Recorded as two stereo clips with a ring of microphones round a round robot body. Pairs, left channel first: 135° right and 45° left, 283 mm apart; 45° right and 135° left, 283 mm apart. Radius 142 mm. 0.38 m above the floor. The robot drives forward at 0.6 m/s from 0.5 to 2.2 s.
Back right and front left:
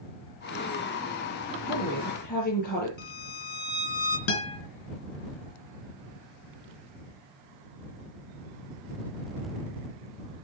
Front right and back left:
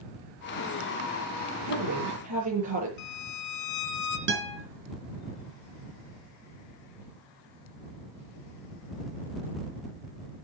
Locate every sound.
1.6 s a woman speaking: 165° left, 8 m
3.0 s a violin: 75° right, 1.9 m
4.3 s a guitar: 170° right, 4.5 m